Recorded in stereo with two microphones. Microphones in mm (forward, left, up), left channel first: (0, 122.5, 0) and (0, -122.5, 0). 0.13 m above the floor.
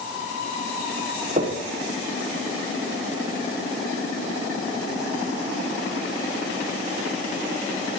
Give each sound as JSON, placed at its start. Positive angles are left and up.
{"t": 1.4, "sound": "knocking", "side_deg": -30, "distance_m": 5.5}